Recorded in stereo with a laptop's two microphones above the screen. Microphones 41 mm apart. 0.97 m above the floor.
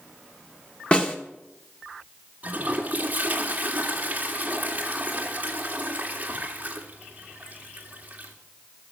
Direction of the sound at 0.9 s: 25° left (ahead or behind).